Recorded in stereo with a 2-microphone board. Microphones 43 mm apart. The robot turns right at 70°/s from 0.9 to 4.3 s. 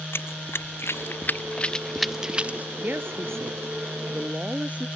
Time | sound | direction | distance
0.1 | running footsteps | 60° left (ahead or behind) | ?
2.8 | a woman speaking | 140° right | ?